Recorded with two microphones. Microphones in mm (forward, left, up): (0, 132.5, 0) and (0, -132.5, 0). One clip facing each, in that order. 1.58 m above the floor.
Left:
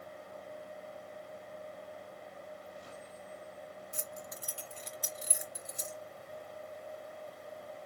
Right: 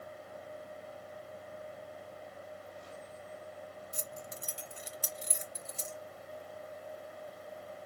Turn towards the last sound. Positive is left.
turn(degrees=20)  # may be behind; listen again after turning